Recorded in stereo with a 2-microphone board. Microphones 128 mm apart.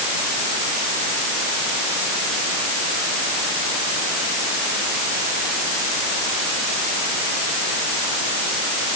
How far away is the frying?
No frying in this recording.